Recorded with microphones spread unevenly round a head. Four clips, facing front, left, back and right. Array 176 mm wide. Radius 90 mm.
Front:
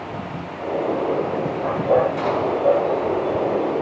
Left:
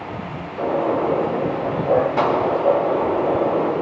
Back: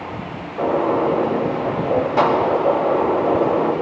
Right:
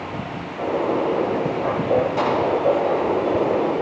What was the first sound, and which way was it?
A gunshot, 170° left.